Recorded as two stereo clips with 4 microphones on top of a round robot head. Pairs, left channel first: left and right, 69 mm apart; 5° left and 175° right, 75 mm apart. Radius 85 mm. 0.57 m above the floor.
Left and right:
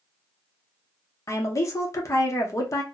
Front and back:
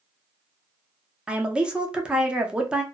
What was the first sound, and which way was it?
A woman speaking, 110° left.